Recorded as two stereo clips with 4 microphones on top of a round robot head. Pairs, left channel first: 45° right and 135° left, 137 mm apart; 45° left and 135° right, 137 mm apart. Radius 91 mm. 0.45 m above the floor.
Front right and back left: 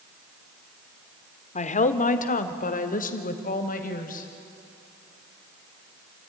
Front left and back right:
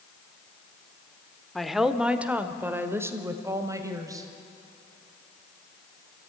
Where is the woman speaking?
45° right, 1.2 m; by 4.3 s 70° right, 2.5 m.